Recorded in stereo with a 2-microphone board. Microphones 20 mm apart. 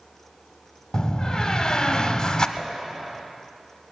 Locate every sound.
0.9 s a door slam: 35° left (ahead or behind), 0.8 m
2.6 s dishes clattering: 5° left (ahead or behind), 1.4 m